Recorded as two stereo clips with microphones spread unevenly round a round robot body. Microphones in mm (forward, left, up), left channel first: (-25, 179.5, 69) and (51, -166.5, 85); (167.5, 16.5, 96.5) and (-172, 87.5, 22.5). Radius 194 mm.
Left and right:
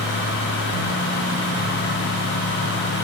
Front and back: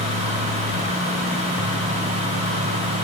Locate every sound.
Only background noise.